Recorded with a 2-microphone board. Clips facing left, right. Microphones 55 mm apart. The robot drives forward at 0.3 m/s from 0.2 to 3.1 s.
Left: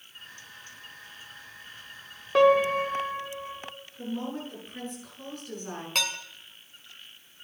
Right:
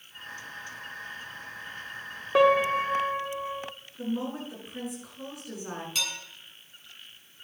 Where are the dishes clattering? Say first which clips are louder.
Left 5 dB; 65° left (ahead or behind), 2 m.